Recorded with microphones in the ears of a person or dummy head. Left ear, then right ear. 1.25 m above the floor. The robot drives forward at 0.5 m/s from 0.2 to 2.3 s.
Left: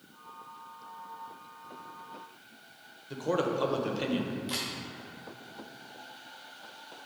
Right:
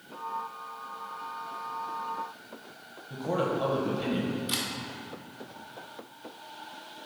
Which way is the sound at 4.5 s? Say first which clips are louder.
Right 2 dB; 20° left (ahead or behind).